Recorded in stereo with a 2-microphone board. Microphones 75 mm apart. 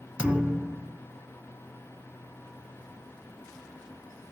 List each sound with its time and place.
0.2 s a thud: 15° right (ahead or behind), 0.8 m